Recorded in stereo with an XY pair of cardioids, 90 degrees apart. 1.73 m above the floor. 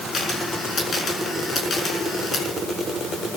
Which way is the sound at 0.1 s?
50° left.